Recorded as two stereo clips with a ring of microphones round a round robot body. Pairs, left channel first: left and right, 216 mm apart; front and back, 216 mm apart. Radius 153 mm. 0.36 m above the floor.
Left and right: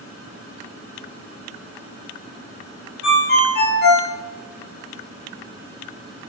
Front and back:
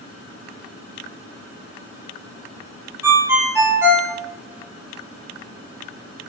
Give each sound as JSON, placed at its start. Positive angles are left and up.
{"t": 3.0, "sound": "a ringtone", "azimuth_deg": 105, "distance_m": 0.7}